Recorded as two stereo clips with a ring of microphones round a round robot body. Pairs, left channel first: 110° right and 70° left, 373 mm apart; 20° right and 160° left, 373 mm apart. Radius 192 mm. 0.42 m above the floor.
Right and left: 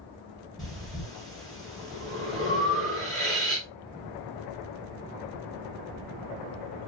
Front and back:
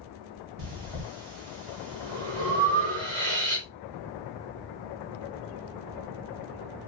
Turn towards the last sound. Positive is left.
turn(degrees=160)